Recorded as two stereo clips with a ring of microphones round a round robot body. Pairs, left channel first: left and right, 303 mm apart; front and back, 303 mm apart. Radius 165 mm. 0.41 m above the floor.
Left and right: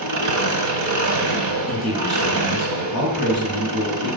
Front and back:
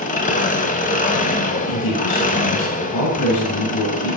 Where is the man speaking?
Straight ahead, 7 m.